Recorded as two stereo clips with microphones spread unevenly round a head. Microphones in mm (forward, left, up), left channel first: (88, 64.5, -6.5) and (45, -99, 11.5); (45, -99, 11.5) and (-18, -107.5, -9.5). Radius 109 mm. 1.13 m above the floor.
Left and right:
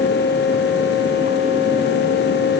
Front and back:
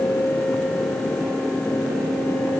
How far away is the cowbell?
I don't hear a cowbell.